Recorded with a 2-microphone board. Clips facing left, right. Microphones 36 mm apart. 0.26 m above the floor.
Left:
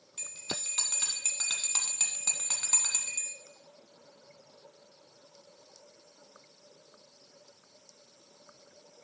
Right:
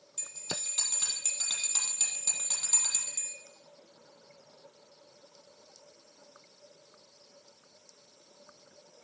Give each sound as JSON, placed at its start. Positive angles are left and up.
{"t": 0.2, "sound": "a bell", "side_deg": 35, "distance_m": 1.2}